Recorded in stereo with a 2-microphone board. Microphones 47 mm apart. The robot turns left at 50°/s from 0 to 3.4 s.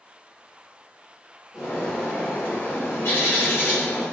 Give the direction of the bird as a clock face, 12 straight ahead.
6 o'clock.